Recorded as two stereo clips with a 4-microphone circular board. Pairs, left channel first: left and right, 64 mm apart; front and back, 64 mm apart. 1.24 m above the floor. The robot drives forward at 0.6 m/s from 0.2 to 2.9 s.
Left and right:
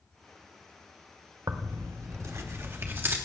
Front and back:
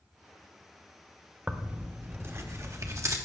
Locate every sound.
1.5 s tearing paper: 110° right, 0.9 m; by 3.2 s 145° right, 1.4 m